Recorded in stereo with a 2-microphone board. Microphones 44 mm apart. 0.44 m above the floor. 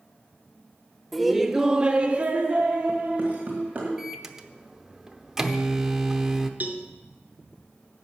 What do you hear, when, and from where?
1.1 s laughter: centre (ahead or behind), 1.1 m; by 3.9 s 30° right (ahead or behind), 2.5 m
4.0 s a microwave: 10° right (ahead or behind), 0.7 m
6.6 s a cowbell: 40° right (ahead or behind), 1.1 m